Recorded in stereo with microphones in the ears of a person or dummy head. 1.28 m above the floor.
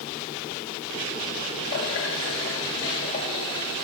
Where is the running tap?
80° left, 3.5 m.